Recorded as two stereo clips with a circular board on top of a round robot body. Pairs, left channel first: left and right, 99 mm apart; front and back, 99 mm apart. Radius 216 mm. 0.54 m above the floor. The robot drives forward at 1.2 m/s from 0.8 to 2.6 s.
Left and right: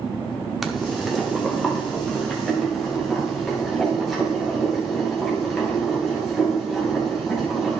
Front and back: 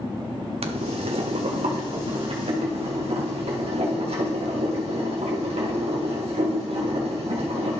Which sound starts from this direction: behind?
Boiling, at 0.6 s.